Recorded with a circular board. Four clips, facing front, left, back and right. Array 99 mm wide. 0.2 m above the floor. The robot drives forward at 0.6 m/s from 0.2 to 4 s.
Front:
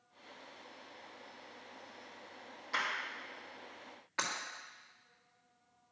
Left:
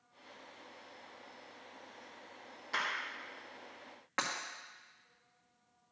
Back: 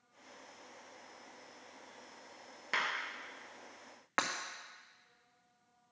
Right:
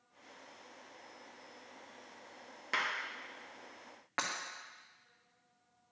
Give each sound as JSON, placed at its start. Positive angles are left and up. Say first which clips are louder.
{"t": 2.7, "sound": "a clap", "louder": "right 1 dB, back 1 dB", "azimuth_deg": -135, "distance_m": 3.0}
{"t": 4.2, "sound": "breaking glass", "louder": "left 1 dB, back 3 dB", "azimuth_deg": -175, "distance_m": 1.8}